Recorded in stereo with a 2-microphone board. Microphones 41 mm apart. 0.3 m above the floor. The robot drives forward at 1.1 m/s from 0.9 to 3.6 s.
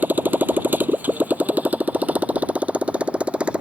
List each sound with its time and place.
0.0 s a motorcycle: 45° right (ahead or behind); by 3.6 s 25° right (ahead or behind)